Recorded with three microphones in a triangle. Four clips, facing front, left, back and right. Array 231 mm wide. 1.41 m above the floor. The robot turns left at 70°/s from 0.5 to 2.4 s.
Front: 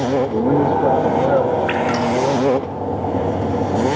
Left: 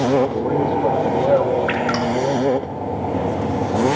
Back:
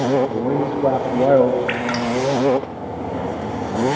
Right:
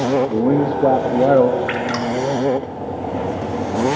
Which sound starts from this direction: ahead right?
A man speaking, at 0.3 s.